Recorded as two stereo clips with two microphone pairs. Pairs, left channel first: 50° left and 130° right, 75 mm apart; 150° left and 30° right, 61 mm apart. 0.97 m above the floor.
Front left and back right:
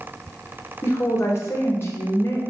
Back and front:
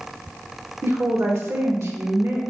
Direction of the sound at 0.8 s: Straight ahead.